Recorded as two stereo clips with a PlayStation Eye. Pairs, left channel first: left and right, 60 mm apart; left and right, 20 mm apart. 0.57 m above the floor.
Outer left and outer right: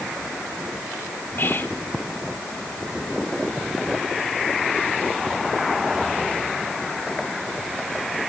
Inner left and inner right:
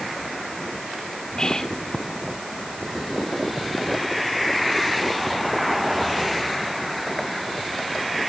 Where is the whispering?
40° left (ahead or behind), 1.7 m.